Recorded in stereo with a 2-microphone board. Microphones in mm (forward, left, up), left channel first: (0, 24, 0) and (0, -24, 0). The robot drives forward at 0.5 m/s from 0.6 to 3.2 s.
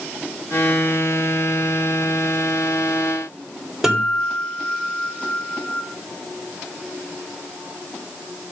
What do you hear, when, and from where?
3.8 s a guitar: 5° right (ahead or behind), 3.5 m